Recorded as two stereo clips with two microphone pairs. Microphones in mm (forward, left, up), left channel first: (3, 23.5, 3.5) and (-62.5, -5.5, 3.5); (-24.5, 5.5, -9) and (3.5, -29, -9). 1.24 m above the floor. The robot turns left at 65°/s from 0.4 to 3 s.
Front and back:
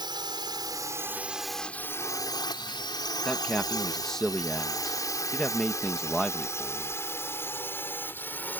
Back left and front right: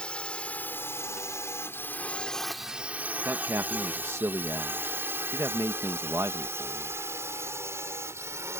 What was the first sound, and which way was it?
A drone, 165° right.